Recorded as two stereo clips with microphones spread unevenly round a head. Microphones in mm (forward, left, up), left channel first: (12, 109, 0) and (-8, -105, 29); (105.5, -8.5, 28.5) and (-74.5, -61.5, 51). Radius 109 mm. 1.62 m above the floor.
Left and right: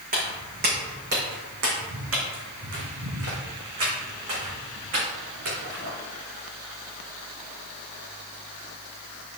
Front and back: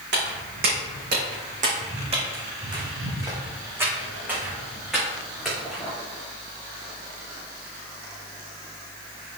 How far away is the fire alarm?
No fire alarm in this recording.